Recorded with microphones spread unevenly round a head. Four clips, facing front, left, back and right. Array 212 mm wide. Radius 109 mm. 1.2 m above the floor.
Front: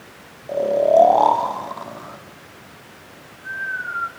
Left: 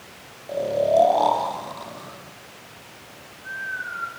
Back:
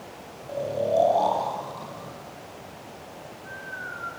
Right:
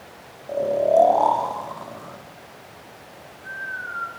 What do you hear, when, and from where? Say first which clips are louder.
0.5 s snoring: right 1 dB, front 9 dB; straight ahead, 4 m